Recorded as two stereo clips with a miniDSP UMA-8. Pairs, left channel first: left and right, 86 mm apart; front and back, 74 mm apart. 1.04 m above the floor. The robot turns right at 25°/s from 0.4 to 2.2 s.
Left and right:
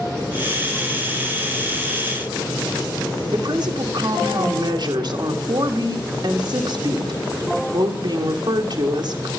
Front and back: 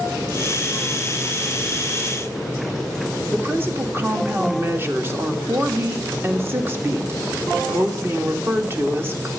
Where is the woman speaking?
120° right, 1.7 m.